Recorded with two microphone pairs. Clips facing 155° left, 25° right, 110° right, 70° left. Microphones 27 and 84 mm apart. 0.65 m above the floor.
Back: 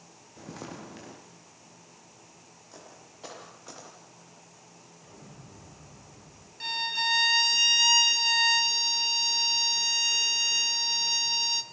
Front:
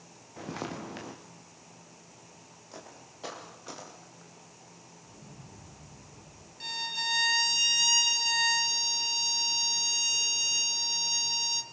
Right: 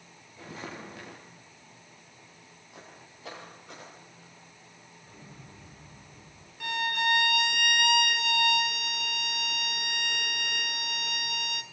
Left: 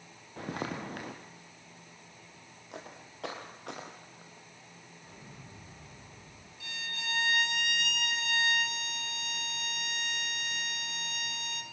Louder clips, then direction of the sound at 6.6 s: Back 4 dB, right 13 dB; 140° right.